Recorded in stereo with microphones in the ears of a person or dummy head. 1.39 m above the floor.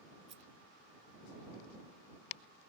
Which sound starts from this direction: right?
A rattle, at 0.3 s.